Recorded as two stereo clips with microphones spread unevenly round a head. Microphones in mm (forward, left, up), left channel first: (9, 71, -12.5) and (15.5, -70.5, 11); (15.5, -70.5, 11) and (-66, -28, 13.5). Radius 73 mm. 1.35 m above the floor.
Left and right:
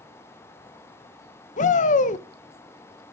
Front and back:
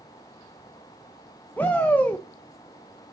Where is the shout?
50° left, 0.8 m.